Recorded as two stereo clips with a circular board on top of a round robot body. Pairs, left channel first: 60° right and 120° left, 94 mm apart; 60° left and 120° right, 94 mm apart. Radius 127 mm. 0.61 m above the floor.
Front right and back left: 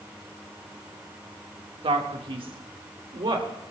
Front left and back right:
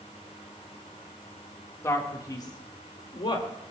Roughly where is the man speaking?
Behind left.